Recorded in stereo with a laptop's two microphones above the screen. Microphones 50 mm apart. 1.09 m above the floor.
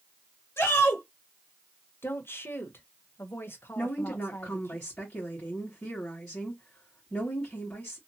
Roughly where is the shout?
Left.